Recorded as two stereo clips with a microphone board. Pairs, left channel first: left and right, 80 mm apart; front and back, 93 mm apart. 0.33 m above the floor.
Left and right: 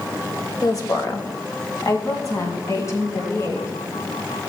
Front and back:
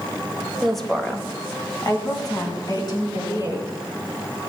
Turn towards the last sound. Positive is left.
turn(degrees=35)